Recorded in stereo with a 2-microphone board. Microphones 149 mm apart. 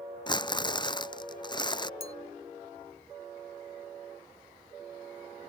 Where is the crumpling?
30° left (ahead or behind).